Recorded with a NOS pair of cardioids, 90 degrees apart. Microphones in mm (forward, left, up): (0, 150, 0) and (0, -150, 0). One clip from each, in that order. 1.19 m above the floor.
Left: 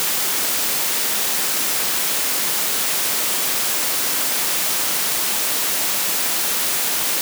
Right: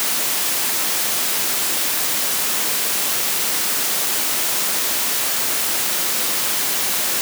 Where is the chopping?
No chopping in this recording.